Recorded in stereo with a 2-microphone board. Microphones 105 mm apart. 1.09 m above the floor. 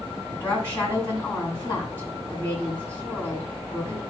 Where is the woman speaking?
20° left (ahead or behind), 7.5 m.